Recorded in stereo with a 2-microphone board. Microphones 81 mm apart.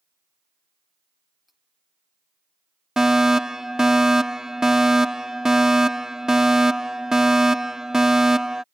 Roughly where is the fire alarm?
Centre.